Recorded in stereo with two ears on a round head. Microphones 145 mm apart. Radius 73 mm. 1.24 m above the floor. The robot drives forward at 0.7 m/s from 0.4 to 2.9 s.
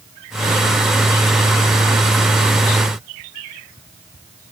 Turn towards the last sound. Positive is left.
No sound to turn to.